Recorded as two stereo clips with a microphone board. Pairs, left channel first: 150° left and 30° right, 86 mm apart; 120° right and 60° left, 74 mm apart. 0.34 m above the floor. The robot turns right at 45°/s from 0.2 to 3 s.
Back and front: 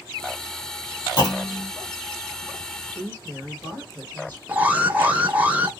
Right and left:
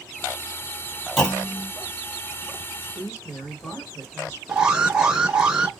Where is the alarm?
Straight ahead, 0.7 m.